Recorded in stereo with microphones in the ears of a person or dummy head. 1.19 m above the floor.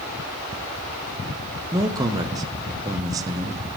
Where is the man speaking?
20° right (ahead or behind), 0.8 m.